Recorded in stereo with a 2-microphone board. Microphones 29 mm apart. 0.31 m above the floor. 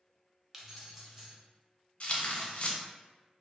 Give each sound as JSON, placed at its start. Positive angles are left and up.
{"t": 0.5, "sound": "keys jangling", "side_deg": -10, "distance_m": 0.6}
{"t": 2.0, "sound": "tearing paper", "side_deg": 45, "distance_m": 0.6}